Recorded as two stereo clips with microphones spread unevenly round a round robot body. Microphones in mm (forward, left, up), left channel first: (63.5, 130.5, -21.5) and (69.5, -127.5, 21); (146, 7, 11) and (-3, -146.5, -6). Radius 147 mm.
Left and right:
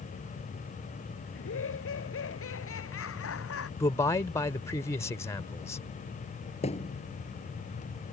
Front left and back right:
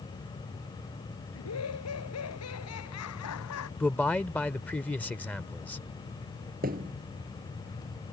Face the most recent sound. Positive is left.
turn(degrees=165)